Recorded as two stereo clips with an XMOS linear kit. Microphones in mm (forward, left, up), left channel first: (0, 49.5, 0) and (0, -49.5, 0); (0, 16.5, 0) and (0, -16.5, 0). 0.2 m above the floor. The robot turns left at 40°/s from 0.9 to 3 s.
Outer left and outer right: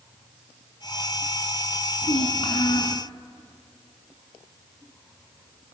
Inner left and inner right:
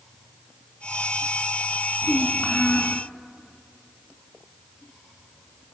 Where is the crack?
No crack in this recording.